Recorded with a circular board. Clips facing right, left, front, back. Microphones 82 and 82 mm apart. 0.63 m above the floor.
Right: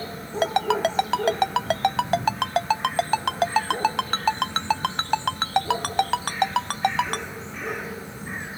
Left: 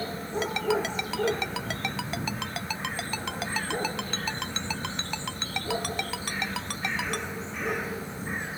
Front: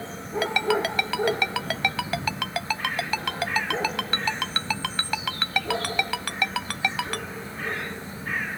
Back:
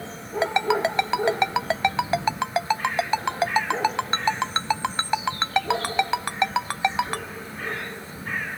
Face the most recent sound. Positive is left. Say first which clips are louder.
# right 6 dB, back 2 dB
turn(degrees=-115)